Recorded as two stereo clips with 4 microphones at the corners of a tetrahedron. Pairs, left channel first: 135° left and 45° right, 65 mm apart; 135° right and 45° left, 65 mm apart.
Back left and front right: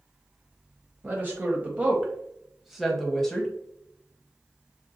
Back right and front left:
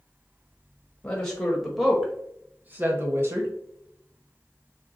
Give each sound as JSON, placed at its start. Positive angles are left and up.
{"t": 1.0, "sound": "a woman speaking", "azimuth_deg": -70, "distance_m": 1.2}